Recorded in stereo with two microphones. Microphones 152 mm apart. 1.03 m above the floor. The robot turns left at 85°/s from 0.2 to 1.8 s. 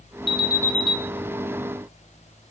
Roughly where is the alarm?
Ahead left.